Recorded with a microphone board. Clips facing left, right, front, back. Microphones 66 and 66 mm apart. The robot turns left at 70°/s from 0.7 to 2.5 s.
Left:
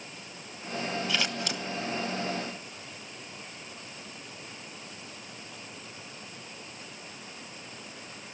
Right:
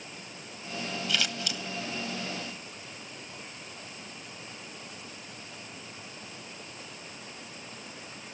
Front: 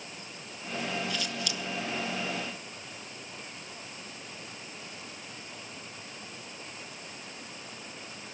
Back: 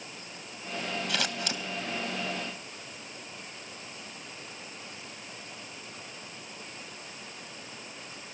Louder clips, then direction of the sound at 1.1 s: Left 1 dB, back 2 dB; 160° left.